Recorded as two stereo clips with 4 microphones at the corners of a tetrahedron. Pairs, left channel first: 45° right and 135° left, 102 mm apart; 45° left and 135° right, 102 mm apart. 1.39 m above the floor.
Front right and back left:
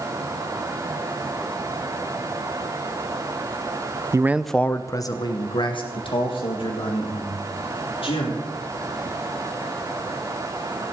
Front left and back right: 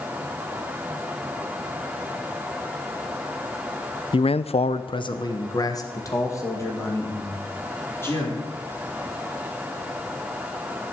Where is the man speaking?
75° left, 0.5 m; by 8.3 s 20° right, 4 m.